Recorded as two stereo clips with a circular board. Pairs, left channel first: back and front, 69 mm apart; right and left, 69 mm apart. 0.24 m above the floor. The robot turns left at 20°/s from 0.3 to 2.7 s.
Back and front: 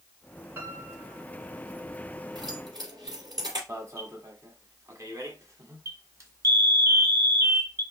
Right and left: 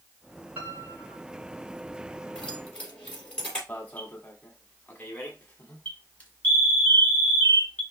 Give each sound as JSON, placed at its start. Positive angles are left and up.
{"t": 0.6, "sound": "a piano", "azimuth_deg": 35, "distance_m": 2.5}
{"t": 2.4, "sound": "keys jangling", "azimuth_deg": -10, "distance_m": 3.5}
{"t": 3.7, "sound": "an alarm", "azimuth_deg": -25, "distance_m": 1.3}